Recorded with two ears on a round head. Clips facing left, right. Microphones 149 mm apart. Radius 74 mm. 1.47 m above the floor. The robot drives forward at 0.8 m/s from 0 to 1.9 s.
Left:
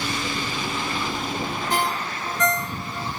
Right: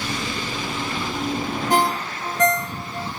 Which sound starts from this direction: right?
A ringtone, at 1.7 s.